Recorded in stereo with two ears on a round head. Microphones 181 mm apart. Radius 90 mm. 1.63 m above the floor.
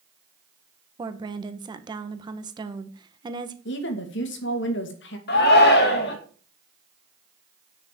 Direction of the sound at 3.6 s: 60° left (ahead or behind).